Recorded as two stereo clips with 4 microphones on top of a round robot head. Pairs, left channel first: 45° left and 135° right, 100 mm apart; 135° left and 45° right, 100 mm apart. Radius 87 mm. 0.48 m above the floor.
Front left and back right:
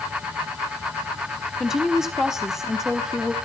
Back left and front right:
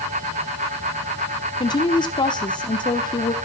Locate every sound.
1.6 s a woman speaking: 140° left, 1.2 m